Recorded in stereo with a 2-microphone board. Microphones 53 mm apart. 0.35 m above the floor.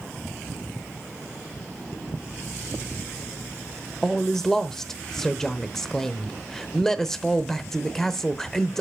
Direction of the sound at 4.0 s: 10° left (ahead or behind).